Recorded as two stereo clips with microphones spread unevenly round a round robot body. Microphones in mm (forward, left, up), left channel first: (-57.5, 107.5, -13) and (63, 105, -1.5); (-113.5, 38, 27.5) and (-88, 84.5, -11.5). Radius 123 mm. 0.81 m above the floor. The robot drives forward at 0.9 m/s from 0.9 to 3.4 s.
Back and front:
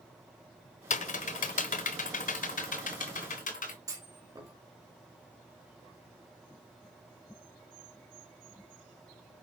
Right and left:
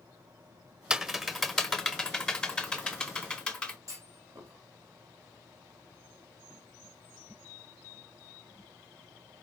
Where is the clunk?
65° left, 5 m.